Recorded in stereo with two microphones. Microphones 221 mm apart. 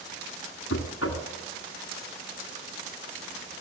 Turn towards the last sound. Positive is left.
turn(degrees=70)  # may be behind; listen again after turning